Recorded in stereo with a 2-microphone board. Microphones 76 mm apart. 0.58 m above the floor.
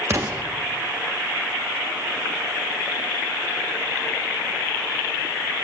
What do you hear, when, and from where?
0.1 s an explosion: 35° right (ahead or behind), 0.8 m